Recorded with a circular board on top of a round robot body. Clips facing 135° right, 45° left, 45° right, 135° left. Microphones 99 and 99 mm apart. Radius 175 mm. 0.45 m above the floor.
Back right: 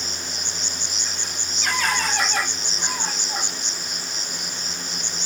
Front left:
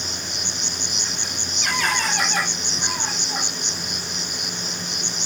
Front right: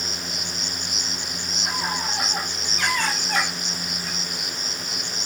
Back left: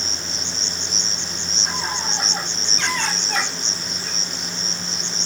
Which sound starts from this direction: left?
An insect, at 0.0 s.